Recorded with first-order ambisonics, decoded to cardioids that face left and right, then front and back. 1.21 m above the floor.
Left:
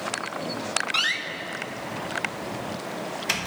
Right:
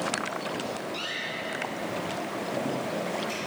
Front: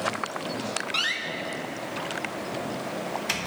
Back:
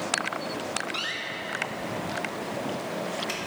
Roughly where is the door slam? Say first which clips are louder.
Left 9 dB, front 4 dB; left.